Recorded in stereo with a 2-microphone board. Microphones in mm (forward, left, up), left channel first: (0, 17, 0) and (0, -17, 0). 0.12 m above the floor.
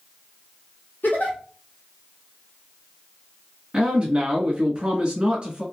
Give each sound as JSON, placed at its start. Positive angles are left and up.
{"t": 1.0, "sound": "a giggle", "side_deg": 65, "distance_m": 1.1}
{"t": 3.7, "sound": "a man speaking", "side_deg": -30, "distance_m": 1.2}